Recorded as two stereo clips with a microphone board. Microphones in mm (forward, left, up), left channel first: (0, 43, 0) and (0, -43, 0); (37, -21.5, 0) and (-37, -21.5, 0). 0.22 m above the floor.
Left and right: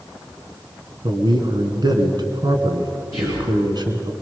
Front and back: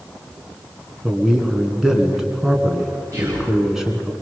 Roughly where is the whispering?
Behind right.